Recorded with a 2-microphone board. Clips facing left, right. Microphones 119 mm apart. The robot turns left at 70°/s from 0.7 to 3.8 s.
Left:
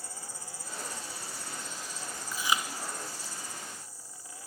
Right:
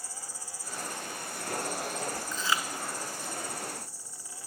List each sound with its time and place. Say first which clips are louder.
0.0 s an insect: even; 125° left, 7.5 m; by 4.5 s 95° right, 7.5 m
2.3 s chewing: left 2 dB; 5° left (ahead or behind), 3 m; by 2.6 s 25° left (ahead or behind), 3 m